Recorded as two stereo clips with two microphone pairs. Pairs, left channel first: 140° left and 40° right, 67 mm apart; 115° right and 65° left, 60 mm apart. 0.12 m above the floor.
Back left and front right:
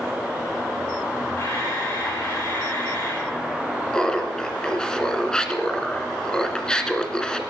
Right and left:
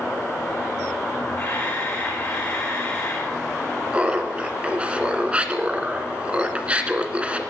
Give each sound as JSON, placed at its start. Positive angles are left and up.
{"t": 1.4, "sound": "a camera shutter", "azimuth_deg": -165, "distance_m": 8.0}
{"t": 3.9, "sound": "laughter", "azimuth_deg": 80, "distance_m": 1.5}